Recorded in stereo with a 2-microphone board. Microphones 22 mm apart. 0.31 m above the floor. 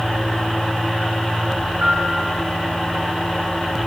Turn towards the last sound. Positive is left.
turn(degrees=-60)  # may be behind; listen again after turning